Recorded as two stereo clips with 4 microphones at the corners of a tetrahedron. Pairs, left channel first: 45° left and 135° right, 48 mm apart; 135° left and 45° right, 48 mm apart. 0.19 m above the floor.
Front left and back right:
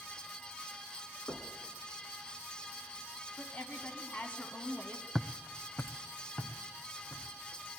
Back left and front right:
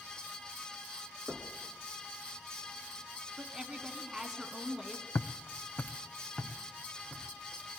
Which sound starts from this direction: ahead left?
Knocking, at 1.3 s.